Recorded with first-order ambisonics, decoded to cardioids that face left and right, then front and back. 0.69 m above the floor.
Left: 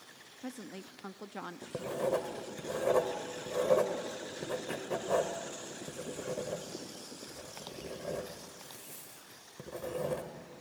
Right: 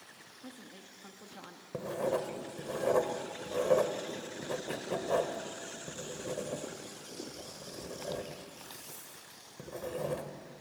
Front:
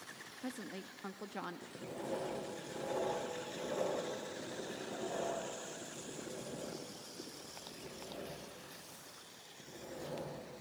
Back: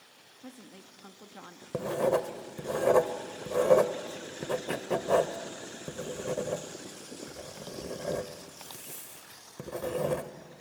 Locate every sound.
0.4 s a woman speaking: 60° left, 0.6 m
1.7 s writing: 175° left, 1.1 m